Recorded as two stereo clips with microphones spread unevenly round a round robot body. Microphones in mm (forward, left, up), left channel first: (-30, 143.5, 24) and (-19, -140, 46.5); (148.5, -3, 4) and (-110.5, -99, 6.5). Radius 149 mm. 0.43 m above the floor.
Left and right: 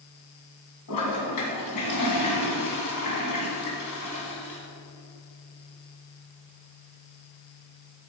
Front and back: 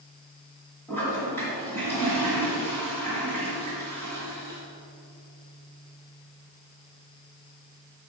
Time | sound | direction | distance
0.9 | a toilet flushing | 105° left | 2.5 m